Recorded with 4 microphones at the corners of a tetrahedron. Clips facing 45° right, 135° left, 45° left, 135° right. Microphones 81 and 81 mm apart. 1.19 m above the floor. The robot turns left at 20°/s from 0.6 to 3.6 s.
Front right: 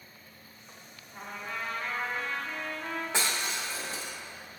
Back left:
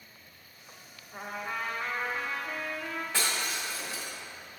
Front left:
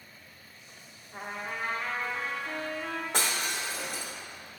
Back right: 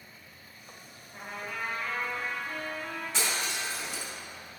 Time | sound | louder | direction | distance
1.1 | a trumpet | back left 3 dB, front left 2 dB | 90° left | 0.8 m
3.1 | breaking glass | even, even | 20° left | 0.8 m